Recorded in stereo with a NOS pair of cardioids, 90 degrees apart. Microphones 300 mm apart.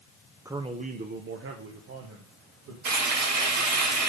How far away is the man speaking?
About 0.8 m.